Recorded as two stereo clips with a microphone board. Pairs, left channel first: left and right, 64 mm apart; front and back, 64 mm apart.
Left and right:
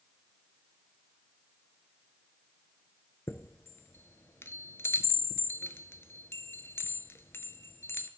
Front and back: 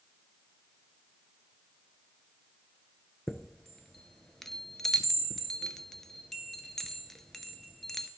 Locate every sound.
3.3 s a chime: 80° left, 0.6 m